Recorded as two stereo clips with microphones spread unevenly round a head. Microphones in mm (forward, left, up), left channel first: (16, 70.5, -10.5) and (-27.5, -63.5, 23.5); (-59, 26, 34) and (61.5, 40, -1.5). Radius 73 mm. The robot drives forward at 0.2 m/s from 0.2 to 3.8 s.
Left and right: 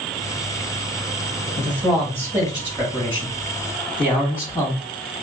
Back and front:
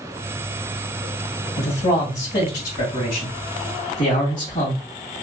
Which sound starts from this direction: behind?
A man speaking, at 1.6 s.